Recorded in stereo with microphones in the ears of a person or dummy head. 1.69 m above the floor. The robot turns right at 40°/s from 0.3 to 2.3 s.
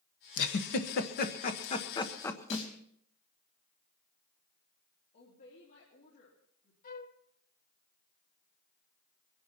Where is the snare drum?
45° left (ahead or behind), 4.5 m.